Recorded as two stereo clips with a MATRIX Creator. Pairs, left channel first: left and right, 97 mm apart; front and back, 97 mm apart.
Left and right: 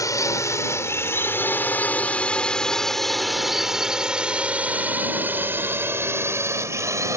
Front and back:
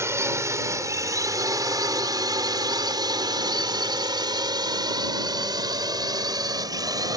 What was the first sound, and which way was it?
A drone, 130° left.